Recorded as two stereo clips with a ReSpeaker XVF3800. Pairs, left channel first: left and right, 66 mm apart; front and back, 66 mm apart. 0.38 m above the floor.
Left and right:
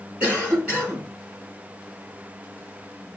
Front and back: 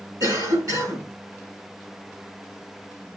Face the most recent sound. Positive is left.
turn(degrees=-160)